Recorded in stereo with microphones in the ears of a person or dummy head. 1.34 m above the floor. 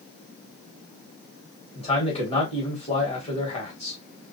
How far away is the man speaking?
About 1.3 m.